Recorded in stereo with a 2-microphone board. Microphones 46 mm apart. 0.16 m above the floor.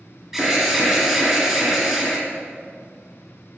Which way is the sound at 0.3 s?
10° right (ahead or behind).